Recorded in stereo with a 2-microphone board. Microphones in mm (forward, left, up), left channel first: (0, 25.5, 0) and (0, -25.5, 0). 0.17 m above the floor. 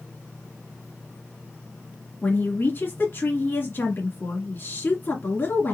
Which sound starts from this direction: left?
A woman speaking, at 2.2 s.